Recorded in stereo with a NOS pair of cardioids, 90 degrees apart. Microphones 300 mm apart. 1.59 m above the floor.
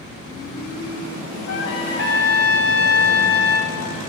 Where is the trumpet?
50° left, 3.5 m.